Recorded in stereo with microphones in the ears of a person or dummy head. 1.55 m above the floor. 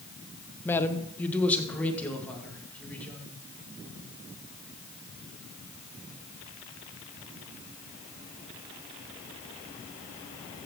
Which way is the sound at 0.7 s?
10° left (ahead or behind).